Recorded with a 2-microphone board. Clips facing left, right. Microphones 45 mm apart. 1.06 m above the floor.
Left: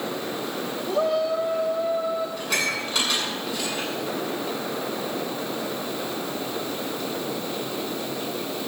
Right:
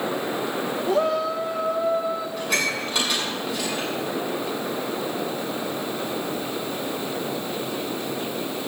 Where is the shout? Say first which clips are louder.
Even; 75° right (ahead or behind), 1.9 m.